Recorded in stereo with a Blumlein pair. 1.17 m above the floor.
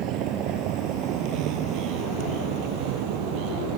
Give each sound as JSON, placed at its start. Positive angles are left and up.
{"t": 0.0, "sound": "a vehicle", "azimuth_deg": -35}